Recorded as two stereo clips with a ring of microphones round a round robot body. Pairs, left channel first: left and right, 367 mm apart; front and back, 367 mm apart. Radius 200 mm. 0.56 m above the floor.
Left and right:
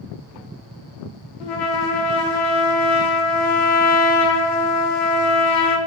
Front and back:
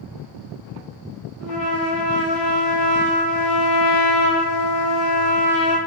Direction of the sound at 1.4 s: 70° left.